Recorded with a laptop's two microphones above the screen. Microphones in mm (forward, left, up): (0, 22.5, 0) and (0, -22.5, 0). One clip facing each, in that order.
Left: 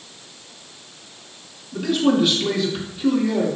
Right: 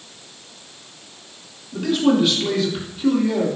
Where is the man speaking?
Centre (ahead or behind), 2.5 m.